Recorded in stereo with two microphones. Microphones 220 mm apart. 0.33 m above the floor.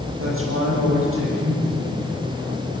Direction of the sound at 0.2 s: 75° right (ahead or behind).